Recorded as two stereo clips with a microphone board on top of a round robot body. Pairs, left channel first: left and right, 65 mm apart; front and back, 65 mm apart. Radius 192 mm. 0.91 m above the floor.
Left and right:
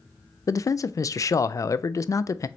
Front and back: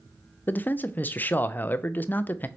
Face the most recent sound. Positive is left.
turn(degrees=60)